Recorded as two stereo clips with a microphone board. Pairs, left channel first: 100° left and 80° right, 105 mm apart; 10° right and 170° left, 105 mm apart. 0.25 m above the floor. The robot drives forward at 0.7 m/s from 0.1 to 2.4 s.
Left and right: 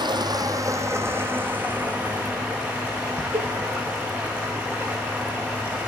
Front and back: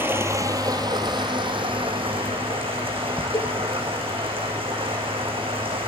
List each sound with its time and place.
0.0 s running water: 120° right, 1.0 m; by 5.9 s 160° right, 2.5 m
3.3 s a cowbell: 55° right, 0.9 m